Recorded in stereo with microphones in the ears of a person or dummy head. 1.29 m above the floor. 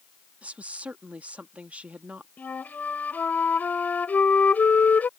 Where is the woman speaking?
10° right (ahead or behind).